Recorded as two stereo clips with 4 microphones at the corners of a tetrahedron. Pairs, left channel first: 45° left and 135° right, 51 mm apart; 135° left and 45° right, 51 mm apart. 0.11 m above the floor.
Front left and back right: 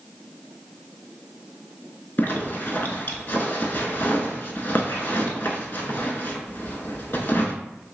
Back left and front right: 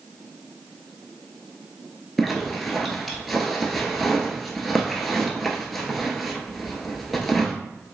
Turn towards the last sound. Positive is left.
turn(degrees=50)